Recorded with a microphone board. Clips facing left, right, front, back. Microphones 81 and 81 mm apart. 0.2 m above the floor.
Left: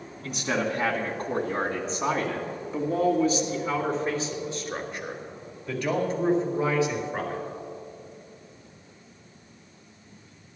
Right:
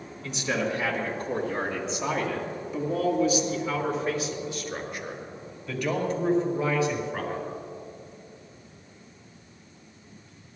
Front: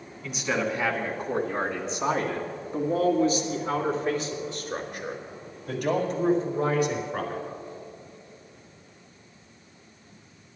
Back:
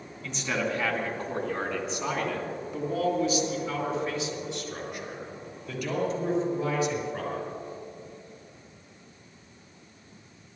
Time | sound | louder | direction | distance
0.2 | a man speaking | left 1 dB, front 2 dB | 80° left | 2 m